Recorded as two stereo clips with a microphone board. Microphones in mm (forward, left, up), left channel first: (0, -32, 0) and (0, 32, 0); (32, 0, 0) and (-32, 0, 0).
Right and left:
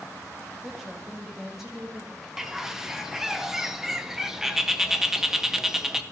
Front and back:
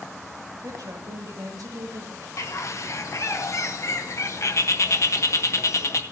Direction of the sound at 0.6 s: 175° left.